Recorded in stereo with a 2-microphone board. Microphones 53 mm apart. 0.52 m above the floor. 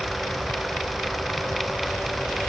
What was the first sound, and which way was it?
Only background noise.